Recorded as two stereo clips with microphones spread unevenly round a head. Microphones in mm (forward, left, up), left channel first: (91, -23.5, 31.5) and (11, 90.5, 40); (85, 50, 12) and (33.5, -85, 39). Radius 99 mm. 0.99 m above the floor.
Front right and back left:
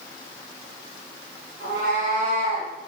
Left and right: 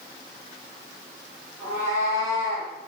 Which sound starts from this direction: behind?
A cat meowing, at 1.6 s.